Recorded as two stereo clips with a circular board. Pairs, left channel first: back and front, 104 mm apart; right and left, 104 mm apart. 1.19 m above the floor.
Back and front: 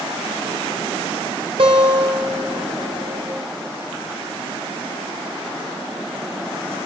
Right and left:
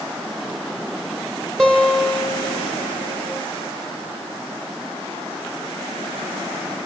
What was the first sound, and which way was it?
A guitar, 5° left.